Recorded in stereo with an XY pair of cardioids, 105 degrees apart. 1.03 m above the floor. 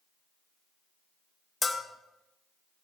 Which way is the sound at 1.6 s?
20° left.